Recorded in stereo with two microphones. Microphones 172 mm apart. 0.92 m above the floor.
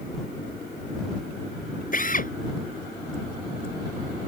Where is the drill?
50° left (ahead or behind).